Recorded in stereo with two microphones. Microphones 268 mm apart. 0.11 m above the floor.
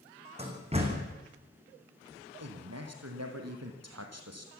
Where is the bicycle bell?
No bicycle bell in this recording.